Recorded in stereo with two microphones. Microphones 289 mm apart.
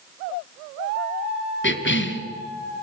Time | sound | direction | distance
1.6 | a cough | 40° left (ahead or behind) | 1.9 m